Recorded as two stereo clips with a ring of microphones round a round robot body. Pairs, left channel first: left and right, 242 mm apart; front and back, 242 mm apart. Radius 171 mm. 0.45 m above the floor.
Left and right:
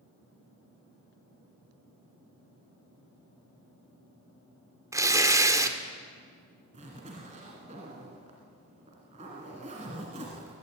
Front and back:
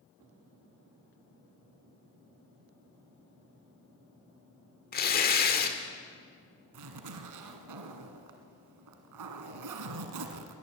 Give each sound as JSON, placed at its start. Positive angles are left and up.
{"t": 4.9, "sound": "tearing paper", "azimuth_deg": -20, "distance_m": 1.6}
{"t": 6.7, "sound": "a zipper", "azimuth_deg": -160, "distance_m": 1.5}